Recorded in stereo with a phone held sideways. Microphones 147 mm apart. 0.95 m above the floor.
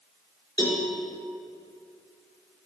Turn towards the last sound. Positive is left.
turn(degrees=35)  # may be behind; listen again after turning